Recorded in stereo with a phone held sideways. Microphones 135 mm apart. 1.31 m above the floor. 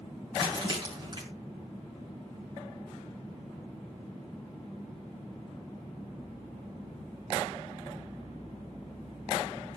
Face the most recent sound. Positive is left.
turn(degrees=-40)  # may be behind; listen again after turning